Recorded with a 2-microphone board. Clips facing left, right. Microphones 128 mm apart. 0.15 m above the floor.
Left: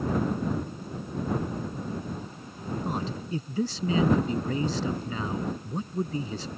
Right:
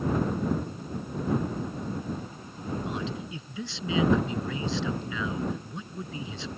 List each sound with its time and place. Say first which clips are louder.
2.8 s a man speaking: left 1 dB; 40° left (ahead or behind)